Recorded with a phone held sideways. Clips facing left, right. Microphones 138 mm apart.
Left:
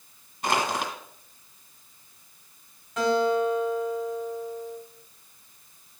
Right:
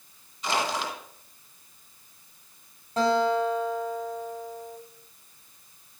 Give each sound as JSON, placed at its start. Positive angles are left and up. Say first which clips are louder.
{"t": 0.4, "sound": "crushing", "louder": "left 2 dB", "side_deg": 60, "distance_m": 2.0}
{"t": 3.0, "sound": "a guitar", "louder": "even", "side_deg": -35, "distance_m": 2.5}